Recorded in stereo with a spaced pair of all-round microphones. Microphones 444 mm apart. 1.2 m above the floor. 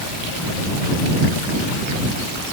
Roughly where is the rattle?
No rattle in this recording.